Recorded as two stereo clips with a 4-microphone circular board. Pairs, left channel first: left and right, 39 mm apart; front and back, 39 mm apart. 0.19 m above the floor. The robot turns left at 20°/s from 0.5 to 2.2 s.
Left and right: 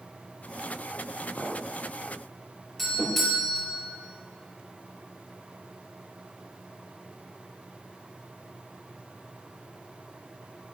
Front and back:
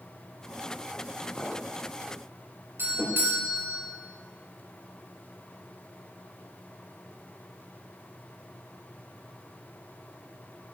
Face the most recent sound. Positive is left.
turn(degrees=170)